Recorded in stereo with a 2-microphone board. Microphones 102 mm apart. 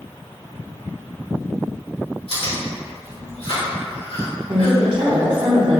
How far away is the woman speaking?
About 0.7 m.